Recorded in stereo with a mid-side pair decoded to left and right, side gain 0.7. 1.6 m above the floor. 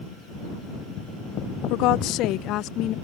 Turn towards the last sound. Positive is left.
turn(degrees=55)